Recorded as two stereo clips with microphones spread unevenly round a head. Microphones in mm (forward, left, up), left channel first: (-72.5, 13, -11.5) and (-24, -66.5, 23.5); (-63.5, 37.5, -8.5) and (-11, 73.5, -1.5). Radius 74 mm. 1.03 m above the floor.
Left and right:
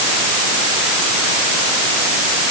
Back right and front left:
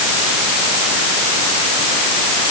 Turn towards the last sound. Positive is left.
No sound to turn to.